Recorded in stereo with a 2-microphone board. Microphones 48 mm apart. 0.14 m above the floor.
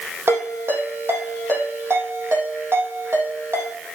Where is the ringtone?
70° right (ahead or behind), 4.5 m.